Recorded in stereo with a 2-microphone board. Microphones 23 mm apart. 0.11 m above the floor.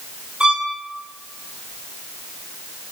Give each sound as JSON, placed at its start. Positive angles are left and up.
{"t": 0.4, "sound": "a violin", "side_deg": -45, "distance_m": 8.5}